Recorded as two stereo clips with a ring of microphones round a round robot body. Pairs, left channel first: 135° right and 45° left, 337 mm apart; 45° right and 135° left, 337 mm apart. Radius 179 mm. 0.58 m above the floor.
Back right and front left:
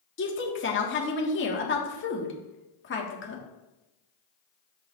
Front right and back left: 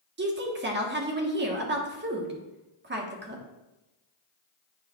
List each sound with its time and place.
0.2 s a woman speaking: 175° right, 1.5 m